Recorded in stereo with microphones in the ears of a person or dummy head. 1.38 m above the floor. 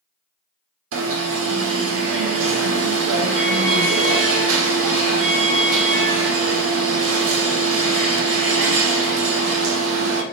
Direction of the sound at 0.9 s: 80° right.